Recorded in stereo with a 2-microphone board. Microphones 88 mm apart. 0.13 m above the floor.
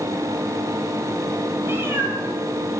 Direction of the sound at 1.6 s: 25° right (ahead or behind).